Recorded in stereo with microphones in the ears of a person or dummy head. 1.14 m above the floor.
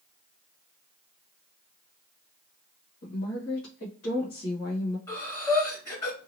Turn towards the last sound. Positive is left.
turn(degrees=20)  # may be behind; listen again after turning